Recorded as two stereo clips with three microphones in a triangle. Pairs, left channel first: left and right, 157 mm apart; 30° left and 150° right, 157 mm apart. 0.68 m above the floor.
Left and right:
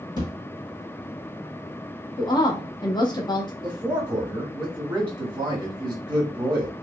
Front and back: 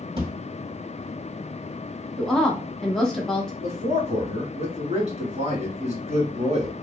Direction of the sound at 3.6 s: 140° right.